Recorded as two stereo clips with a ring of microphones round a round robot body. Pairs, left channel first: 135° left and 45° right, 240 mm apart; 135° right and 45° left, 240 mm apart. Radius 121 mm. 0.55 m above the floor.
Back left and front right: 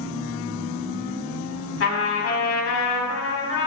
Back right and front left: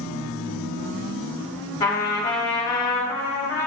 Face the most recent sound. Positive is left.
turn(degrees=155)